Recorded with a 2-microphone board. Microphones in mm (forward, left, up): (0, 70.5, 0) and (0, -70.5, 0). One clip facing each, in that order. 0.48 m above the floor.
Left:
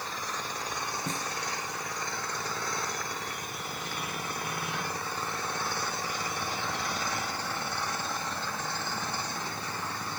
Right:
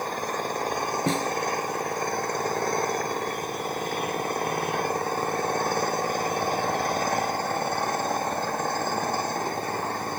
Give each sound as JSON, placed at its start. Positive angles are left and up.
{"t": 0.0, "sound": "an engine running", "side_deg": -50}
{"t": 1.1, "sound": "a snare drum", "side_deg": -75}